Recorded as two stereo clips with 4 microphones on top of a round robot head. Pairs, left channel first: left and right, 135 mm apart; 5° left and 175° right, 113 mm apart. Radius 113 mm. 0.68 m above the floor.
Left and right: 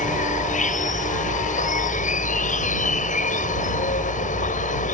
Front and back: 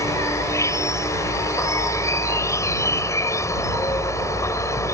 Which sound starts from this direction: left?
An insect, at 0.0 s.